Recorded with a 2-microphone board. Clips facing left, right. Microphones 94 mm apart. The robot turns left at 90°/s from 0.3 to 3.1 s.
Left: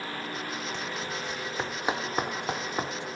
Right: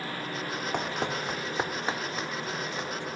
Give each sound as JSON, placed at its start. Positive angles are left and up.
{"t": 0.7, "sound": "running footsteps", "side_deg": -55}